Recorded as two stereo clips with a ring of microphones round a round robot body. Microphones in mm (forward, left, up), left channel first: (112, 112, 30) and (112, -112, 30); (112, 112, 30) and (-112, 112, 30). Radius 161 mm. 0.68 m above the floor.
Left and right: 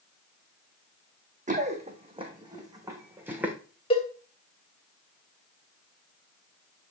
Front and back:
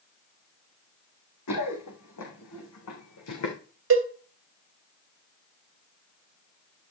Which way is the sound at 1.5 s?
35° right.